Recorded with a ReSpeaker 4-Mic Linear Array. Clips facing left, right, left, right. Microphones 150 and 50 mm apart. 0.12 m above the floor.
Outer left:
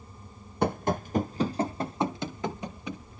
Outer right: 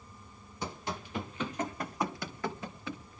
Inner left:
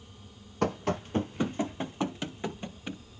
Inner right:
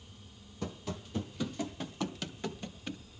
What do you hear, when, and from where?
0.6 s running footsteps: 60° left (ahead or behind), 0.8 m; by 3.0 s 15° left (ahead or behind), 2.5 m